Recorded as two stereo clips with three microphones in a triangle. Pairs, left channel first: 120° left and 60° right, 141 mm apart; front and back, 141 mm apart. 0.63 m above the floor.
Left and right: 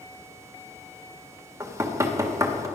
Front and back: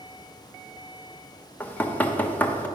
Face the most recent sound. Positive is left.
turn(degrees=-55)